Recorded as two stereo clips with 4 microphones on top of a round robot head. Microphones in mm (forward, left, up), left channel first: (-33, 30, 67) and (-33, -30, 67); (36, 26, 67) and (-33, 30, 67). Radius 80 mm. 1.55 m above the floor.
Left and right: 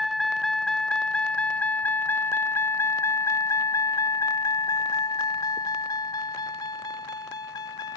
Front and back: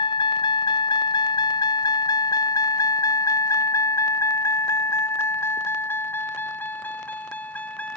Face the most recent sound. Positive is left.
turn(degrees=65)